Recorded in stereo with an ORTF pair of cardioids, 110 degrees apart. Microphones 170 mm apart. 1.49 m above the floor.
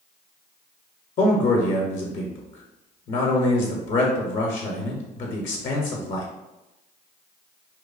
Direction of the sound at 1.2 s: 50° left.